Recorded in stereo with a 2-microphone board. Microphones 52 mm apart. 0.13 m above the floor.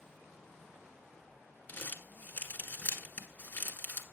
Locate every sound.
1.7 s crumpling: 40° left (ahead or behind), 1.3 m